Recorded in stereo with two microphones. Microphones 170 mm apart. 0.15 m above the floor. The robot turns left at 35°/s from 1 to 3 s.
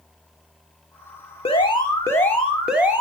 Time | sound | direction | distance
1.4 | an alarm | 40° left | 1.8 m